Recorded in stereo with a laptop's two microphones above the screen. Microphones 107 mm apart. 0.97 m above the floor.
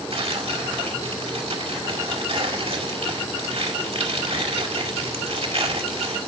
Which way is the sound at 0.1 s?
65° right (ahead or behind).